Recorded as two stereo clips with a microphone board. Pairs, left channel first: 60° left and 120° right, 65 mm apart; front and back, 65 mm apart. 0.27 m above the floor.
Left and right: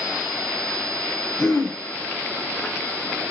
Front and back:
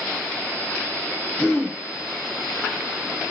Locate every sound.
1.4 s throat clearing: 45° left, 2.0 m